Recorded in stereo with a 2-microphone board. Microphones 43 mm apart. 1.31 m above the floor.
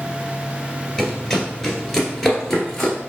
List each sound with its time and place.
1.0 s running footsteps: centre (ahead or behind), 1.3 m; by 3.0 s 5° left (ahead or behind), 1.4 m